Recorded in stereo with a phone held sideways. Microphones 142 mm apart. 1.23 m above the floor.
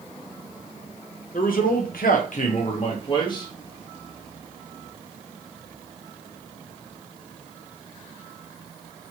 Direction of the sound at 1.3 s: 70° left (ahead or behind).